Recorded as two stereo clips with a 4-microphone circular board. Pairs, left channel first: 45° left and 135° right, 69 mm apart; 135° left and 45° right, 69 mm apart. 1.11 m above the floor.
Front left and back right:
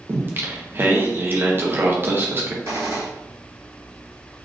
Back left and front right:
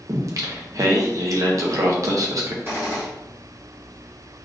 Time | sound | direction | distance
0.1 | singing | 80° right | 0.6 m
2.6 | a gunshot | 100° right | 1.3 m